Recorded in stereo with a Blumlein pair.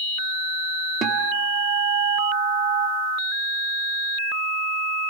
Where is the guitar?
25° right, 1.6 m.